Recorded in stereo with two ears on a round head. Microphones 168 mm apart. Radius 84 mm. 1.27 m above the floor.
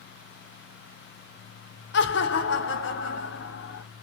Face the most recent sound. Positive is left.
turn(degrees=75)  # may be behind; listen again after turning